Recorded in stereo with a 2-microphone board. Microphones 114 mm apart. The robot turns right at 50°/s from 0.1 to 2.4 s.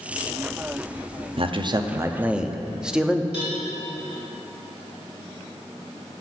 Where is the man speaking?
60° right, 0.6 m; by 3.2 s 10° right, 0.6 m.